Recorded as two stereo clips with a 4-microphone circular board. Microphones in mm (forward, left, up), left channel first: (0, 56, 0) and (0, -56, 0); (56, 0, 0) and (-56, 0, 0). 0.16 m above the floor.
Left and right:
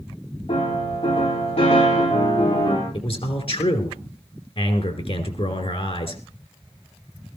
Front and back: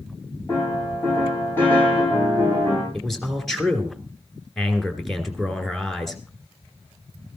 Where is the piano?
70° left, 9 m.